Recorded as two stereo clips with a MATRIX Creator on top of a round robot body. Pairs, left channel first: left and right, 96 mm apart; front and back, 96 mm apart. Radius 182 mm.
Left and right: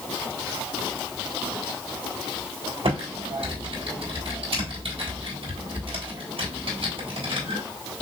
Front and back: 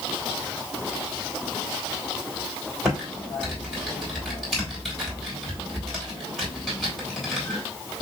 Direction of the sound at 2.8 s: 90° right.